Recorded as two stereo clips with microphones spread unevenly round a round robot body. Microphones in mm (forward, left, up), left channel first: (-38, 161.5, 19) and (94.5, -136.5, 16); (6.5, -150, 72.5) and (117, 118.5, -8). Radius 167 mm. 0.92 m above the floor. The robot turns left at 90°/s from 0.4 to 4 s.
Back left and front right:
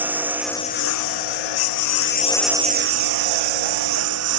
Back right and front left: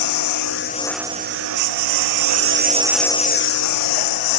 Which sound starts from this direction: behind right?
A lawn mower, at 0.0 s.